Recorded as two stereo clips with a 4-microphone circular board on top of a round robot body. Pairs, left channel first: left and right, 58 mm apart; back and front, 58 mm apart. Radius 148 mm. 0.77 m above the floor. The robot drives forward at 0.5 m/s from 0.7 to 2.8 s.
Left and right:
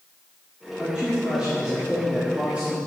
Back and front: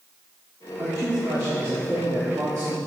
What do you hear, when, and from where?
0.8 s a man speaking: 15° right, 2.5 m; by 2.8 s 25° right, 1.7 m